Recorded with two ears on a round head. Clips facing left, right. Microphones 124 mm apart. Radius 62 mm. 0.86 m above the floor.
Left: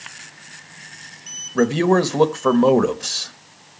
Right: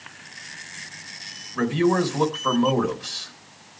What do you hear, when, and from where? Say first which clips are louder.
1.6 s a man speaking: left 4 dB; 55° left (ahead or behind), 1.4 m